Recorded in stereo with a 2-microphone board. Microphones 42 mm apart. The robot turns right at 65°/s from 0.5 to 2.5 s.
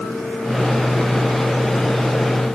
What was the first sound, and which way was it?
Only background noise.